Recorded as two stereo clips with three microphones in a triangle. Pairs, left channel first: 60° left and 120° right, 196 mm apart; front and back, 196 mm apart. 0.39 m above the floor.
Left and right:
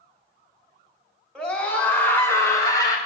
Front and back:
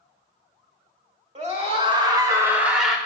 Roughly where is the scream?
Behind left.